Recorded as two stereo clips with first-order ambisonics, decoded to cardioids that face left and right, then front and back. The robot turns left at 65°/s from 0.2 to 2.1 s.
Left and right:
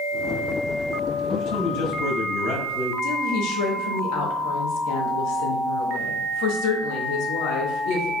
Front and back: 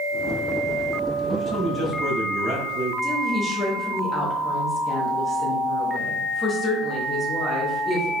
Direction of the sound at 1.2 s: 130° left.